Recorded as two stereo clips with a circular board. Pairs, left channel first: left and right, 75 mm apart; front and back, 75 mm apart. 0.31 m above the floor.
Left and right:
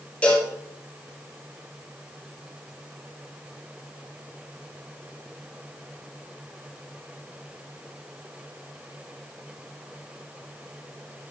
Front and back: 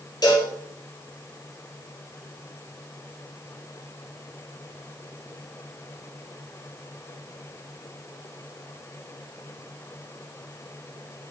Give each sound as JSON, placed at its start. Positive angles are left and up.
{"t": 0.2, "sound": "a cowbell", "azimuth_deg": 20, "distance_m": 4.0}